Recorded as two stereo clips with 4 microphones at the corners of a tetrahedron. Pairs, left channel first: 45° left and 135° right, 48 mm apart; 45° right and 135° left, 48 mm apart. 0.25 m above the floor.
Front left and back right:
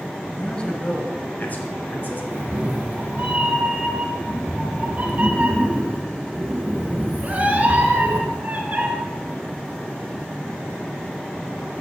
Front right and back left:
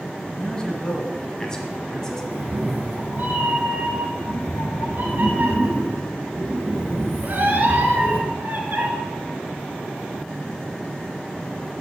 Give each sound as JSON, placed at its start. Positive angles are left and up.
{"t": 0.3, "sound": "a man speaking", "azimuth_deg": -5, "distance_m": 1.3}
{"t": 2.3, "sound": "a cat meowing", "azimuth_deg": 175, "distance_m": 1.4}